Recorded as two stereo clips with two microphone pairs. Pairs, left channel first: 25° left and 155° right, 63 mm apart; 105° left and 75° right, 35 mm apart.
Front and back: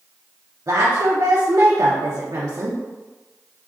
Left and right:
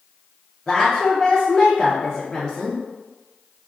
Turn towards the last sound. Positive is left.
turn(degrees=180)